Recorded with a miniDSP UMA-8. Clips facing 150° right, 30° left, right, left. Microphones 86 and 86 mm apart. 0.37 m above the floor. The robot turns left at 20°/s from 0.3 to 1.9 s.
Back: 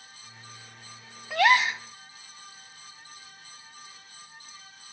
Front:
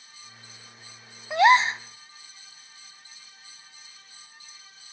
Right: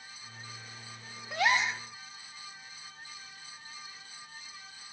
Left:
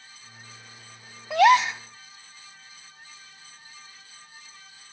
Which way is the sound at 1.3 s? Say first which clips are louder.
Front 4 dB, left 11 dB; 100° left.